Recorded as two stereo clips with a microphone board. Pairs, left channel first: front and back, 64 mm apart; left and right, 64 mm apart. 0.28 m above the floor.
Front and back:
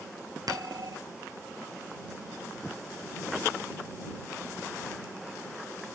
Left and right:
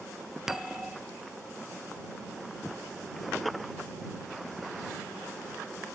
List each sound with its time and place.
0.5 s a bell: 170° right